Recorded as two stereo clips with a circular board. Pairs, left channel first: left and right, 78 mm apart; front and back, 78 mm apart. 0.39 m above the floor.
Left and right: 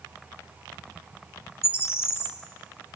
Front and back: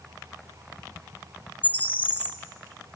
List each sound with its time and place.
1.6 s a bird: 55° left, 1.4 m